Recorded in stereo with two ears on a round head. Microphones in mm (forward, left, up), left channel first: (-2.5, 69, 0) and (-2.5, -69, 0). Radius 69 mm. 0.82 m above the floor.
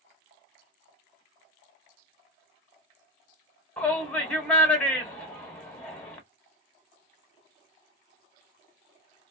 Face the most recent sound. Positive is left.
turn(degrees=10)  # may be behind; listen again after turning